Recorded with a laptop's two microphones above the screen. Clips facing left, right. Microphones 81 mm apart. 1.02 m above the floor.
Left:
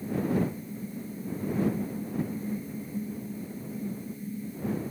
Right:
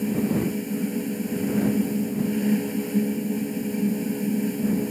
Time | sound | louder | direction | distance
0.0 | a fan | right 5 dB | 85° right | ?